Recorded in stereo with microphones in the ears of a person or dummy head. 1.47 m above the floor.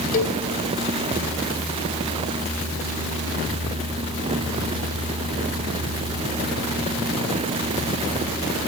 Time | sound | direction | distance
0.1 | a cowbell | 45° left (ahead or behind) | 1.8 m